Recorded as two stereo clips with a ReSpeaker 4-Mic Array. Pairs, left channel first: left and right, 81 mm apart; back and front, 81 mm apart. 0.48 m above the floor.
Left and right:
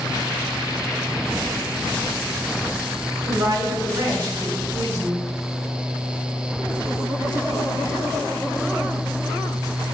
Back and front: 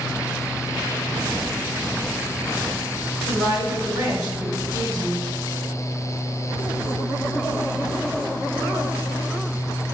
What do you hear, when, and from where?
3.2 s a woman speaking: 35° right, 3 m